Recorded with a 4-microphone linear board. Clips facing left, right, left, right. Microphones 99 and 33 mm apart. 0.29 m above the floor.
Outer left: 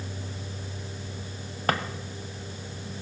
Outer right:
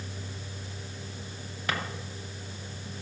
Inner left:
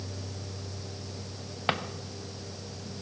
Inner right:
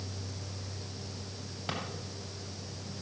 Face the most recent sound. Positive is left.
turn(degrees=50)  # may be behind; listen again after turning